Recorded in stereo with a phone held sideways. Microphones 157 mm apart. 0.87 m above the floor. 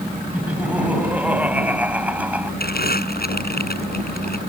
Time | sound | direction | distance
0.3 | laughter | 10° right (ahead or behind) | ?
2.6 | crumpling | 80° left | ?